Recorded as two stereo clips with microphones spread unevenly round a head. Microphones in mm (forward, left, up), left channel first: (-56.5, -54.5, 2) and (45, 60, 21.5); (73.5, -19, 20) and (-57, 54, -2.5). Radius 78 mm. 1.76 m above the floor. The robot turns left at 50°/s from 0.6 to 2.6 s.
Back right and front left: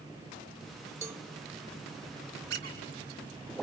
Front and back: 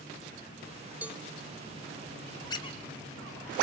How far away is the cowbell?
About 1.4 m.